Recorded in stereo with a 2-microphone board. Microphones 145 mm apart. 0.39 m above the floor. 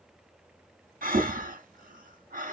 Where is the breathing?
75° right (ahead or behind), 1.0 m.